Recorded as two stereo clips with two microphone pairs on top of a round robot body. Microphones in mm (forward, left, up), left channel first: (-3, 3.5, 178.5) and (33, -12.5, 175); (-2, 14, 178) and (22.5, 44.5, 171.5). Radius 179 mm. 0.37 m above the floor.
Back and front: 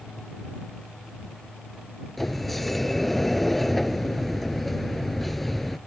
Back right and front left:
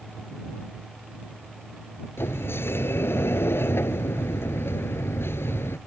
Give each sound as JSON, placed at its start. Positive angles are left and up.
{"t": 2.2, "sound": "a sliding door", "azimuth_deg": -120}